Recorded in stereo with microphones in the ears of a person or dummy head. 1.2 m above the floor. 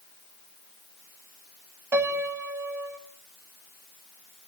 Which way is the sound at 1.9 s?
15° right (ahead or behind).